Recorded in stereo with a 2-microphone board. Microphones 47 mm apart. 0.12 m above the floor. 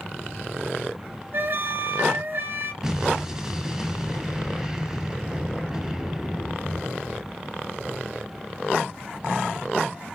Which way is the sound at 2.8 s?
10° right (ahead or behind).